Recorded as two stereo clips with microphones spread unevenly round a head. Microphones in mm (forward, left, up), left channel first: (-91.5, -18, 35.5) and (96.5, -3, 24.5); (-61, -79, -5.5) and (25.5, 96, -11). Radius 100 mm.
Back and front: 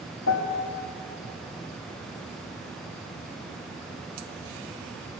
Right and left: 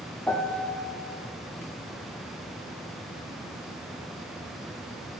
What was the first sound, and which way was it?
A piano, 160° left.